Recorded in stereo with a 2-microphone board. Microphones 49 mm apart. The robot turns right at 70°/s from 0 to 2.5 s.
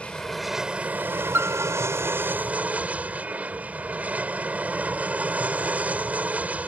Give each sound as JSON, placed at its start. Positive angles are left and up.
{"t": 0.0, "sound": "an aircraft", "azimuth_deg": 150}
{"t": 1.3, "sound": "a piano", "side_deg": -55}